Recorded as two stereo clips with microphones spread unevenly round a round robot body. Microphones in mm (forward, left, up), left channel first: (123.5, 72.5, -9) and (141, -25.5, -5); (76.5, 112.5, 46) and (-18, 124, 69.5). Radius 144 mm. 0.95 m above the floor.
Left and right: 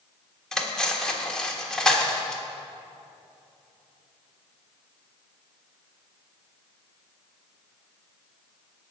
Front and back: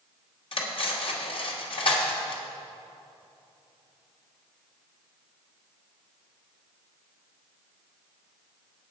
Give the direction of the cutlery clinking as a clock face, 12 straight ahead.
11 o'clock.